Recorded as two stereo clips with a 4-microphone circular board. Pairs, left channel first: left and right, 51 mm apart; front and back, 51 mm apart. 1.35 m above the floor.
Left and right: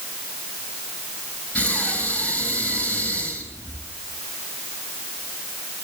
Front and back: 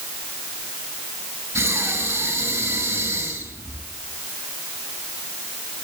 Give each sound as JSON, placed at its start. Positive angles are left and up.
{"t": 1.6, "sound": "breathing", "azimuth_deg": 150, "distance_m": 3.5}